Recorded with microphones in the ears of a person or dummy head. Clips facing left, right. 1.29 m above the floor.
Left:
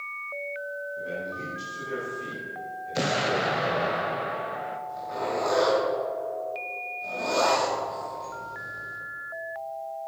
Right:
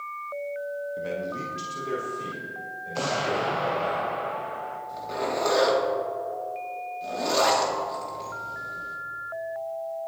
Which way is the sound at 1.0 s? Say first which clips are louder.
Right 3 dB; 85° right.